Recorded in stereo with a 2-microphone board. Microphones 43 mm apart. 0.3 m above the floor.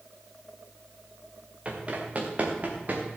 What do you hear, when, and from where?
1.6 s running footsteps: 35° right (ahead or behind), 3 m; by 3.1 s 40° right (ahead or behind), 3.5 m